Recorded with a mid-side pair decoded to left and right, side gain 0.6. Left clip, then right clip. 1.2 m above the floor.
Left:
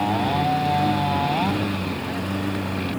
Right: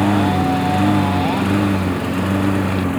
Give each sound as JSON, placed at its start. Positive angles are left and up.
{"t": 0.0, "sound": "a lawn mower", "azimuth_deg": -45}